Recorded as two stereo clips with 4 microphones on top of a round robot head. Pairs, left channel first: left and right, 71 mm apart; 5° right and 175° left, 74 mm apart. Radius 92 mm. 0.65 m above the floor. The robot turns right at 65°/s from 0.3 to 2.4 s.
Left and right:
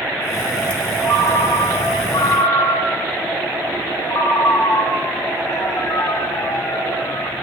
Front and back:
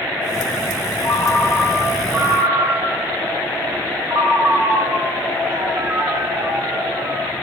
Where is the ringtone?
40° left, 1.1 m; by 7.3 s 130° left, 1.1 m.